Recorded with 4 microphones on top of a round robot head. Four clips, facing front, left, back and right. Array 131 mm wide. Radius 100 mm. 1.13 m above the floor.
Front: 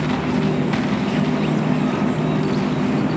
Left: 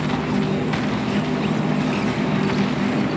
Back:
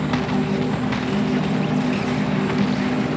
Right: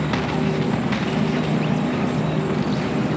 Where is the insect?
25° left, 5 m.